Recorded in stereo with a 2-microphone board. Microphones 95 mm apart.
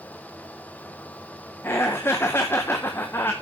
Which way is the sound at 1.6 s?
25° left (ahead or behind).